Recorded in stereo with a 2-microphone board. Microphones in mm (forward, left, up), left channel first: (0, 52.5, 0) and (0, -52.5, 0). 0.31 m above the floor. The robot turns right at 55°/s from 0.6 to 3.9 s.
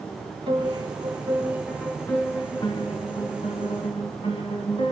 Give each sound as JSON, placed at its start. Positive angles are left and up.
{"t": 0.5, "sound": "a piano", "azimuth_deg": -65, "distance_m": 3.5}